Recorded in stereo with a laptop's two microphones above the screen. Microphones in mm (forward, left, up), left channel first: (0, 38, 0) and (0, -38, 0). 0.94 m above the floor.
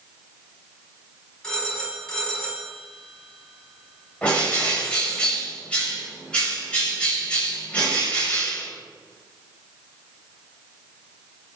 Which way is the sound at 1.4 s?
10° left (ahead or behind).